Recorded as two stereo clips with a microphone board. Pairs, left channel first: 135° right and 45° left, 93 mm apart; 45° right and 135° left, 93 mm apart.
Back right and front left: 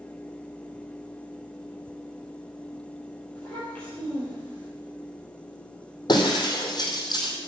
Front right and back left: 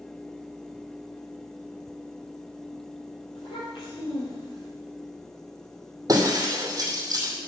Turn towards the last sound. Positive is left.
turn(degrees=-175)